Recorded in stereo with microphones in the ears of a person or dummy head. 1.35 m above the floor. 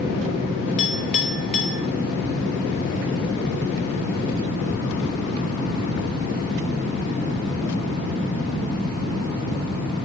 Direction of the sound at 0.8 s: 45° left (ahead or behind).